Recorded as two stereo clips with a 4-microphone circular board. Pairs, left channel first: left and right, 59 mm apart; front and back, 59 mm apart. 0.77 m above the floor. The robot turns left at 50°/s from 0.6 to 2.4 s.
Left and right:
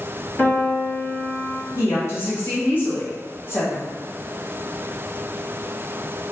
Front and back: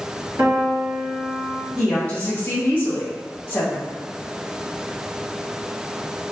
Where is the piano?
150° left, 1.6 m; by 1.6 s 100° left, 1.6 m.